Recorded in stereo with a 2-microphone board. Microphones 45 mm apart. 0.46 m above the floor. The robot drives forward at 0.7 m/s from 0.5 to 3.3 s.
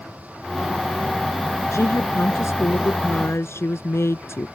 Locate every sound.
1.7 s a woman speaking: 75° left (ahead or behind); by 4.5 s 70° left (ahead or behind)